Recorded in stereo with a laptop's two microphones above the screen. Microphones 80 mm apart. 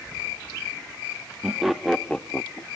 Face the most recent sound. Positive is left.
turn(degrees=40)  # may be behind; listen again after turning